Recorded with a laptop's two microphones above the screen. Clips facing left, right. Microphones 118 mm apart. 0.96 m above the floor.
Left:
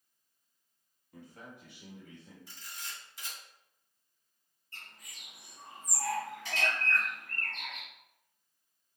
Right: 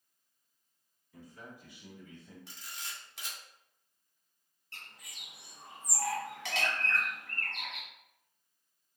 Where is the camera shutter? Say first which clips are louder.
Left 1 dB; 75° right (ahead or behind), 0.8 m.